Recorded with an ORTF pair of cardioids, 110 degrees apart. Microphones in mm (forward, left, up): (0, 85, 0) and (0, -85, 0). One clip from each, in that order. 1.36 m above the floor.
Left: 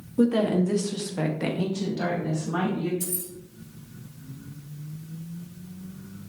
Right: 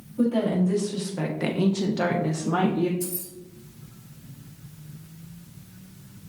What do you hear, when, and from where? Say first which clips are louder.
0.2 s a woman speaking: left 2 dB; 40° left, 1.1 m; by 2.9 s 75° right, 0.9 m
3.0 s keys jangling: right 1 dB; 45° left, 1.7 m